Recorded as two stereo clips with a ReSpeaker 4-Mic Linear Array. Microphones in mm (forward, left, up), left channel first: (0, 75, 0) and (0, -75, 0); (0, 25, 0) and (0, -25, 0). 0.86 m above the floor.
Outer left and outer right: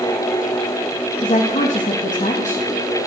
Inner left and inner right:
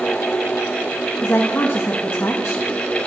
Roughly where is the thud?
No thud in this recording.